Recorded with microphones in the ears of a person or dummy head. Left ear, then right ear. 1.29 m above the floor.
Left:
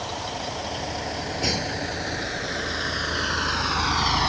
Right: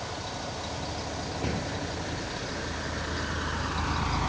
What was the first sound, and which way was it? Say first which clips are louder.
A vehicle: left 5 dB; 75° left (ahead or behind).